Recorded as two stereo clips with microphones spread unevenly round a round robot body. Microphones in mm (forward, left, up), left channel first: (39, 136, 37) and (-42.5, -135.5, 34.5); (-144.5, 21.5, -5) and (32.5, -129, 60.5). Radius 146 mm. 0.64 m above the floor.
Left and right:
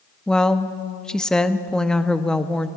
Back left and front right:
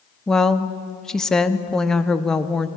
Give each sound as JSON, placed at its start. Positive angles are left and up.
{"t": 0.3, "sound": "a woman speaking", "azimuth_deg": 160, "distance_m": 0.9}